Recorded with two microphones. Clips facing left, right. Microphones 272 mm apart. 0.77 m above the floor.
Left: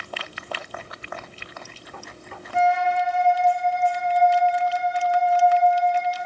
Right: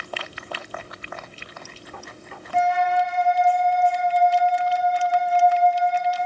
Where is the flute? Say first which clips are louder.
Even; 55° right (ahead or behind), 1.0 m.